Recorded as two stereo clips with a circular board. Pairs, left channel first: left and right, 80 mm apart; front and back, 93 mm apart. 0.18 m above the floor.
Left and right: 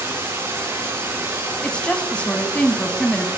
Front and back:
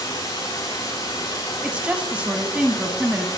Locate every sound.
0.0 s running water: 30° right, 5.5 m
1.6 s a woman speaking: 135° left, 1.0 m